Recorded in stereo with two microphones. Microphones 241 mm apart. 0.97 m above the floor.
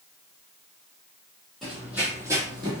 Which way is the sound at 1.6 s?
Centre (ahead or behind).